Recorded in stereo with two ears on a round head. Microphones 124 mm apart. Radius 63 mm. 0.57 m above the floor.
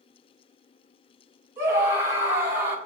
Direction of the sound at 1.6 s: 20° right (ahead or behind).